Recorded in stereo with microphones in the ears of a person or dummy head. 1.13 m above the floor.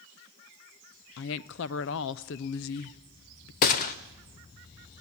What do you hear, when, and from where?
1.2 s a woman speaking: 65° left (ahead or behind), 0.5 m
3.6 s a gunshot: 40° left (ahead or behind), 1.0 m